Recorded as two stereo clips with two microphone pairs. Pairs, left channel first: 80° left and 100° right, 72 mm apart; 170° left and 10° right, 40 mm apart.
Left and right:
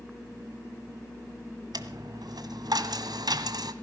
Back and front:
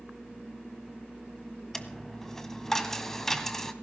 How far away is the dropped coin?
About 1.5 m.